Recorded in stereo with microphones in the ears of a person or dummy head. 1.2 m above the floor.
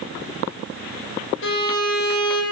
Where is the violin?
70° left (ahead or behind), 2.5 m.